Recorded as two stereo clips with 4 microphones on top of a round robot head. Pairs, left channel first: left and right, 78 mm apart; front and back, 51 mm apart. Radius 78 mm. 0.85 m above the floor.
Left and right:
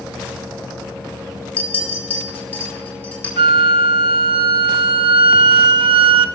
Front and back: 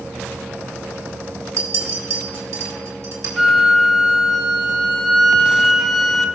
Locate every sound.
1.6 s a clink: 160° left, 2.5 m
3.4 s a flute: 90° right, 0.5 m